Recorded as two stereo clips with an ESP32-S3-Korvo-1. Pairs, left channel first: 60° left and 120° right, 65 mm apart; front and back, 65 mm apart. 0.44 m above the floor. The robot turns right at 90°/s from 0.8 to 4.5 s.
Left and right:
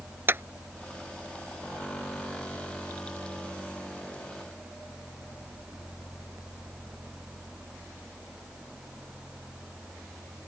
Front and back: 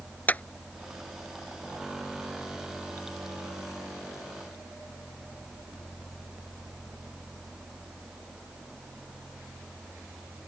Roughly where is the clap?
Ahead right.